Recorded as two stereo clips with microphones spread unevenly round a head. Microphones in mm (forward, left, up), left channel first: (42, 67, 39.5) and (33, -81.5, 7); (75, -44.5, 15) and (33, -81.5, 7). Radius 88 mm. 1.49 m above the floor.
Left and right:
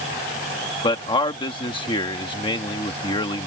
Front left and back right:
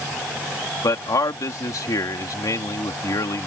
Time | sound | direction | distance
0.8 | a man speaking | 30° left | ?